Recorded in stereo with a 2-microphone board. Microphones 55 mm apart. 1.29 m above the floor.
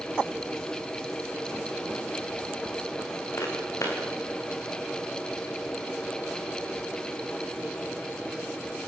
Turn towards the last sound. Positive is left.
turn(degrees=65)  # may be behind; listen again after turning